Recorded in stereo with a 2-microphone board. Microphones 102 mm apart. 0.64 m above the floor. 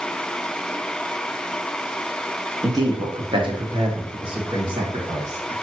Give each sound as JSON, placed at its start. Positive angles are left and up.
{"t": 2.6, "sound": "a man speaking", "side_deg": -35, "distance_m": 0.9}